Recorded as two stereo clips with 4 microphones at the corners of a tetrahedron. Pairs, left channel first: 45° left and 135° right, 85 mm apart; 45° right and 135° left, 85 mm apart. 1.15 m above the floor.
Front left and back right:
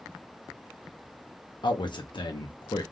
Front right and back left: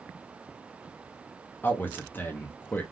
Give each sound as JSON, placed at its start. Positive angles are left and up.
{"t": 1.6, "sound": "a man speaking", "azimuth_deg": 20, "distance_m": 0.5}